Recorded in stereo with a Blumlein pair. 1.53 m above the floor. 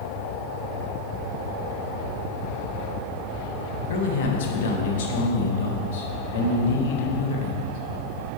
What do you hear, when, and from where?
3.9 s a man speaking: 55° left, 1.7 m